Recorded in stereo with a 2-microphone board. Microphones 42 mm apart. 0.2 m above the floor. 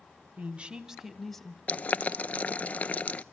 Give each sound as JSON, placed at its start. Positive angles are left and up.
{"t": 0.4, "sound": "a woman speaking", "side_deg": -35, "distance_m": 1.4}
{"t": 1.7, "sound": "boiling", "side_deg": 35, "distance_m": 0.6}